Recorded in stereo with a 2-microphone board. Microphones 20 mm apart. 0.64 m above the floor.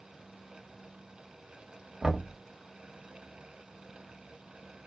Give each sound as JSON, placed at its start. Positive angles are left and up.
{"t": 2.0, "sound": "knocking", "side_deg": -35, "distance_m": 1.2}